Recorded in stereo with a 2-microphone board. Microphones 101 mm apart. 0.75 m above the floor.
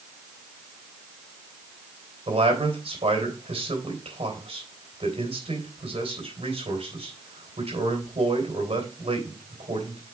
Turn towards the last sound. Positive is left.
turn(degrees=-80)